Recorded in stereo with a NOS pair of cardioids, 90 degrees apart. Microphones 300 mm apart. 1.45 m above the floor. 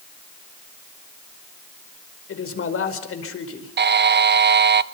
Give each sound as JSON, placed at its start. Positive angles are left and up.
{"t": 2.3, "sound": "a man speaking", "azimuth_deg": 45, "distance_m": 5.0}
{"t": 3.8, "sound": "a buzzer", "azimuth_deg": -35, "distance_m": 1.1}